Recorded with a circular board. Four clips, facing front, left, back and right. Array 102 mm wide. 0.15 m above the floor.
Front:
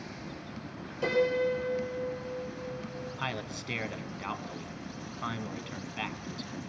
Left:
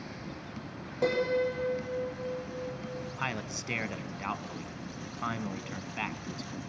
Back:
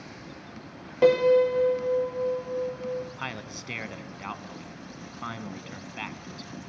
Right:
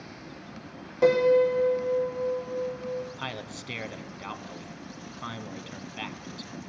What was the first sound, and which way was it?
A piano, 175° right.